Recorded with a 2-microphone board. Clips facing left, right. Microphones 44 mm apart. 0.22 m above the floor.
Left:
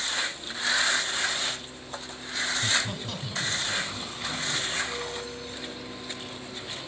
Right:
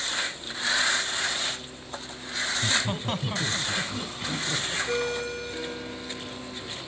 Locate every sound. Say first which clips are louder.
2.5 s laughter: right 2 dB; 20° right (ahead or behind), 1.2 m; by 4.8 s 55° right (ahead or behind), 3 m
4.9 s a ringtone: right 6 dB; 70° right (ahead or behind), 1.5 m